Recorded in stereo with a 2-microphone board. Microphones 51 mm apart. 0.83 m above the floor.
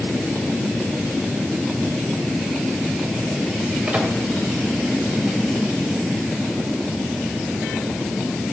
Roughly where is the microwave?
Right.